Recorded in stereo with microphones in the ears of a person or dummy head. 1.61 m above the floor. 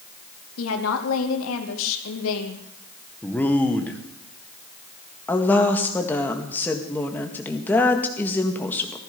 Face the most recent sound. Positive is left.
turn(degrees=10)  # may be behind; listen again after turning